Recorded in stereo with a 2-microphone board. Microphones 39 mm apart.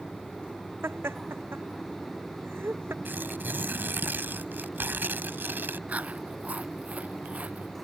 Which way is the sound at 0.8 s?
85° right.